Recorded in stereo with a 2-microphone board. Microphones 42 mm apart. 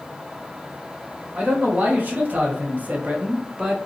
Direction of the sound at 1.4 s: 40° right (ahead or behind).